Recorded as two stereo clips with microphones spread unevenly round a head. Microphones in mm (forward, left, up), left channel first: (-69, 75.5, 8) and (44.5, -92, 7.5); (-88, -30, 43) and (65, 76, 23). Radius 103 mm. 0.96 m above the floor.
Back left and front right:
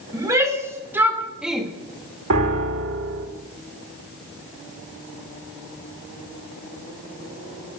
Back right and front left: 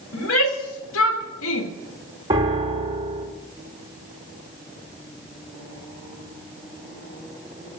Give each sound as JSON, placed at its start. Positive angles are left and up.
{"t": 0.1, "sound": "a shout", "azimuth_deg": -130, "distance_m": 3.0}
{"t": 2.3, "sound": "a piano", "azimuth_deg": -35, "distance_m": 1.7}